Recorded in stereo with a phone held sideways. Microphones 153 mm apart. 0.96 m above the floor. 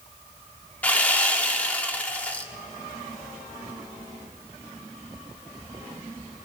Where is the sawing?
10° left (ahead or behind), 1.3 m.